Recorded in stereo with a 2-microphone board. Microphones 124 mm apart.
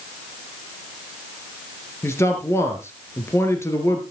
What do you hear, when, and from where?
2.0 s a man speaking: 20° left (ahead or behind), 2.5 m